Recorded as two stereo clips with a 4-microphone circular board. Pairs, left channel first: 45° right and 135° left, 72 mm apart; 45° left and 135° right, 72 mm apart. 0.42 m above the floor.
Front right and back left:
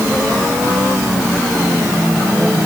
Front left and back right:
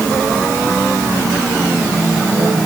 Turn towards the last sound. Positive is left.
No sound to turn to.